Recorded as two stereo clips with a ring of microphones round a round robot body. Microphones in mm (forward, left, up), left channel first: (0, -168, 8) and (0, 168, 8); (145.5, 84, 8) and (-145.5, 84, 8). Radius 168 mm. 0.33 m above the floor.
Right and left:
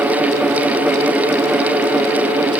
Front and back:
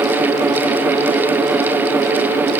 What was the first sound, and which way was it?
Only background noise.